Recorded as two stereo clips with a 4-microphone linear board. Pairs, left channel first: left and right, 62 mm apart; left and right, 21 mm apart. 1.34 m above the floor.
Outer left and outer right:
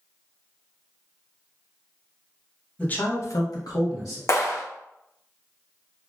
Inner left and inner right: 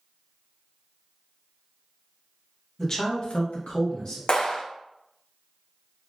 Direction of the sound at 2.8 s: 25° left (ahead or behind).